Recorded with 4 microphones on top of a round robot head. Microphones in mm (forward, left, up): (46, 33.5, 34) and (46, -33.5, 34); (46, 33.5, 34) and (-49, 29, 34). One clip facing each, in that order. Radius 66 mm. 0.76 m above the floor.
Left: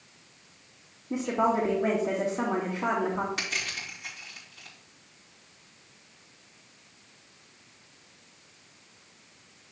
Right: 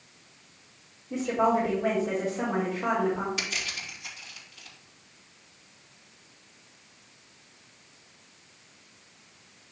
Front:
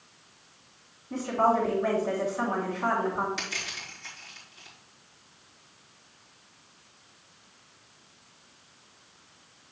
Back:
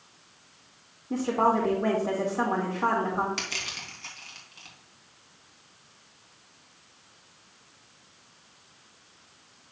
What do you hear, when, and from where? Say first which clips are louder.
1.1 s a woman speaking: right 1 dB, back 1 dB; 140° left, 1.9 m
3.4 s crushing: left 1 dB, even; 160° left, 3 m